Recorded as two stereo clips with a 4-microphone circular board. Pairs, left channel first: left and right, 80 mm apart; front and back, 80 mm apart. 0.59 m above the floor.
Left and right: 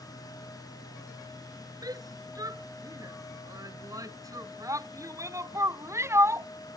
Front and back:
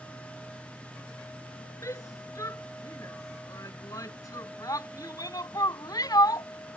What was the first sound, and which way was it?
A shout, 50° right.